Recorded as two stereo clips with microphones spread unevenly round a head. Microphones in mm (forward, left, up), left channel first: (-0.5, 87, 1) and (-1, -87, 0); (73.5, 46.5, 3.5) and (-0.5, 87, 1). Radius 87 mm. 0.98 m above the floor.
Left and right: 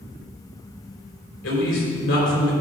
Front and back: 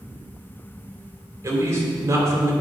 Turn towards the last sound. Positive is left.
turn(degrees=100)